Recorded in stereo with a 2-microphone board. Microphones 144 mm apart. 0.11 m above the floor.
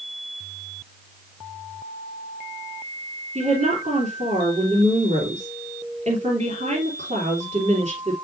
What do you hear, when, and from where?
3.4 s a woman speaking: 55° right (ahead or behind), 3 m